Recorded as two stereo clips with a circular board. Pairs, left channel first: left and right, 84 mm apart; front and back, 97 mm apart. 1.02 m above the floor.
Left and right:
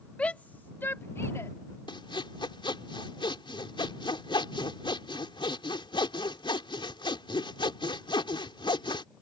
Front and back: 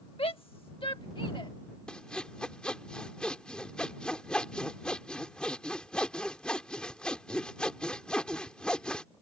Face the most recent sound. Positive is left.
turn(degrees=80)